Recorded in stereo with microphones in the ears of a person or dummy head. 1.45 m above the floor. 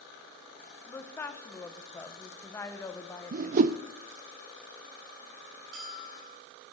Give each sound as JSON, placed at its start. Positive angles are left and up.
{"t": 0.9, "sound": "a woman speaking", "side_deg": 15, "distance_m": 1.2}
{"t": 3.3, "sound": "a whoosh", "side_deg": -50, "distance_m": 0.5}
{"t": 5.7, "sound": "a bell", "side_deg": -75, "distance_m": 9.0}